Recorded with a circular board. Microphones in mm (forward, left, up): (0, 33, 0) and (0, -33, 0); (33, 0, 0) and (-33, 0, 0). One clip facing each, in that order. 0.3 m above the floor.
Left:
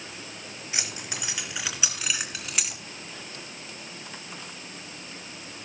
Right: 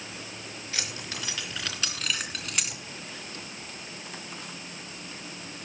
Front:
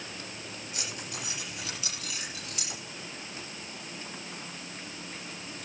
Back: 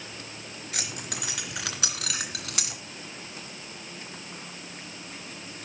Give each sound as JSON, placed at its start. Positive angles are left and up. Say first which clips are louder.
{"t": 0.7, "sound": "keys jangling", "louder": "left 1 dB, back 4 dB", "azimuth_deg": 160, "distance_m": 3.5}